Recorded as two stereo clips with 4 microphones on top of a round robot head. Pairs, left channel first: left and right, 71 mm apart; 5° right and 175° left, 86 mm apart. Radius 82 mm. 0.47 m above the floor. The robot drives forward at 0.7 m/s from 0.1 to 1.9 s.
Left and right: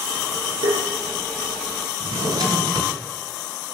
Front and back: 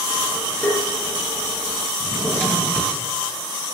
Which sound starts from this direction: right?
Tapping, at 0.6 s.